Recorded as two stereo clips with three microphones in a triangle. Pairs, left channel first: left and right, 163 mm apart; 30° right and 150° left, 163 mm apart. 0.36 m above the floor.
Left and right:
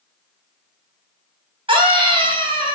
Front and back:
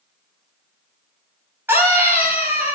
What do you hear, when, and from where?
1.7 s a scream: 135° right, 2.5 m